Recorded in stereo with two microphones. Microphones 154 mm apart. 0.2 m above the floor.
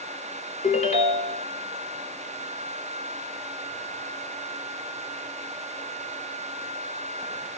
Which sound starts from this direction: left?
A ringtone, at 0.6 s.